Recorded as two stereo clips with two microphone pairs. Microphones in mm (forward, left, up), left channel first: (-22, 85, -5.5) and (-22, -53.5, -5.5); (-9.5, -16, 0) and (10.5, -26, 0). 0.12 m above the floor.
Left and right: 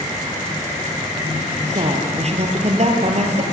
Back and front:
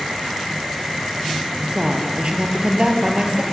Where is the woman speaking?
65° right, 3 m.